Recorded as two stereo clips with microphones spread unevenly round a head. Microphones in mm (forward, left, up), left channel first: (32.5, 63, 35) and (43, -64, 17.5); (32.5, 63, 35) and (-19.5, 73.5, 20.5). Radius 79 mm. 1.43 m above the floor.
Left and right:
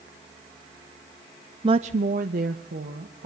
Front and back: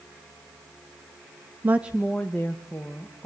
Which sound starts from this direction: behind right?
A woman speaking, at 1.6 s.